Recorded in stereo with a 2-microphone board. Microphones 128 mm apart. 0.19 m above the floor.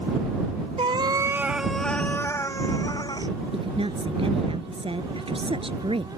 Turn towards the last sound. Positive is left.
turn(degrees=-45)  # may be behind; listen again after turning